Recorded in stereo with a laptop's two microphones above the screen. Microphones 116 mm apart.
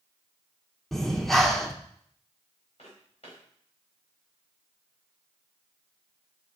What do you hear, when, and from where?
0.9 s breathing: centre (ahead or behind), 0.9 m
2.8 s footsteps: 60° left (ahead or behind), 5 m